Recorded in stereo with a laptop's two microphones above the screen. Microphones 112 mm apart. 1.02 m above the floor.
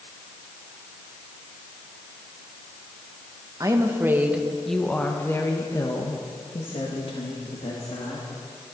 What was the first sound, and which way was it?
A woman speaking, 30° right (ahead or behind).